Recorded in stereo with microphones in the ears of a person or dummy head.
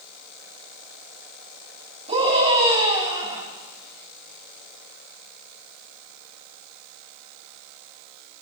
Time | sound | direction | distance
2.1 | a scream | 40° right (ahead or behind) | 9.5 m